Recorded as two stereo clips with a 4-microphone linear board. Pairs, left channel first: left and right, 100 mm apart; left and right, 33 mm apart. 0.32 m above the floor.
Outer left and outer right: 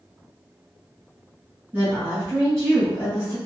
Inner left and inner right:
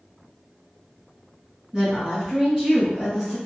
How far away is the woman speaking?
About 1.6 m.